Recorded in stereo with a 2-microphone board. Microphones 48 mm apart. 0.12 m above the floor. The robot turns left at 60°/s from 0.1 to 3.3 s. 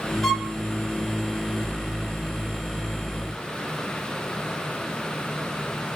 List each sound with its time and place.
0.2 s a violin: 5° left (ahead or behind), 1.4 m; by 0.6 s centre (ahead or behind), 1.4 m